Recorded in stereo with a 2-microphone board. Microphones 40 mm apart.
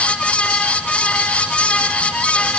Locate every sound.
Only background noise.